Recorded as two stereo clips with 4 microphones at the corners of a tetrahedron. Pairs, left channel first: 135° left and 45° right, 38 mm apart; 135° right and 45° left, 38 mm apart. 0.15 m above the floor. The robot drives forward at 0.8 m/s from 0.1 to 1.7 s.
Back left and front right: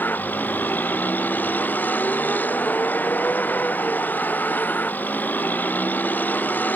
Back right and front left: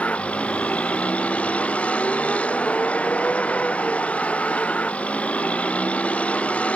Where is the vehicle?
170° left.